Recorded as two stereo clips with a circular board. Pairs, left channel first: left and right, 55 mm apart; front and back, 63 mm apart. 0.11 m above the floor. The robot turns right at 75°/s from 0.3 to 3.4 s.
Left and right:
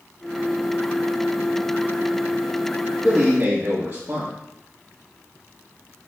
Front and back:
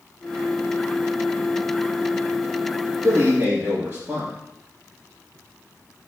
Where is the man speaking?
170° right, 2.5 m; by 4.3 s 145° right, 2.5 m.